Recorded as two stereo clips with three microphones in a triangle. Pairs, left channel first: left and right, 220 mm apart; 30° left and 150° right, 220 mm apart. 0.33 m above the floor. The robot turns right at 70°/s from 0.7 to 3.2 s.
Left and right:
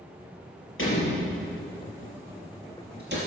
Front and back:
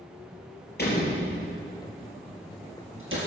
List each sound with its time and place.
0.8 s a door slam: 70° left, 4.5 m; by 3.2 s 125° right, 4.5 m